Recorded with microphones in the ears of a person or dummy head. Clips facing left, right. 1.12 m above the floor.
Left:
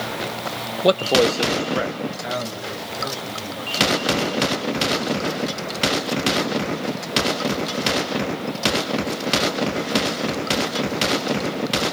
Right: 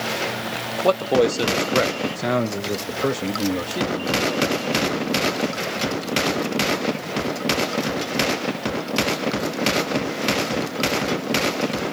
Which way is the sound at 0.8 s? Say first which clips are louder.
Left 1 dB; 25° left (ahead or behind).